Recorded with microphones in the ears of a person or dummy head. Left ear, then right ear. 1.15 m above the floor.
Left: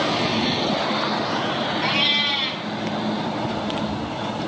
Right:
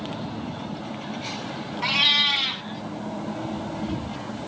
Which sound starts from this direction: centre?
A cat meowing, at 1.8 s.